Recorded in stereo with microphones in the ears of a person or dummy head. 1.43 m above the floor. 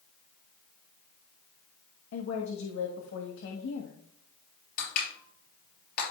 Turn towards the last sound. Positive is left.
turn(degrees=55)  # may be behind; listen again after turning